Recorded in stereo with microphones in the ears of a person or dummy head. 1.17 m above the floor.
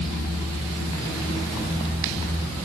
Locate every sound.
Only background noise.